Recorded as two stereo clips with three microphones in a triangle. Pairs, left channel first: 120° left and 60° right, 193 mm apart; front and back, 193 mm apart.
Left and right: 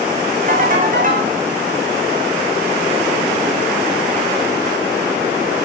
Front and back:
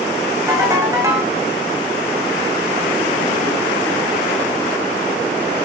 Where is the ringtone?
105° right, 6.5 m.